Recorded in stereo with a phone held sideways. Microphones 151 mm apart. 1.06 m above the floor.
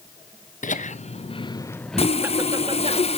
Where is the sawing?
40° left (ahead or behind), 0.5 m.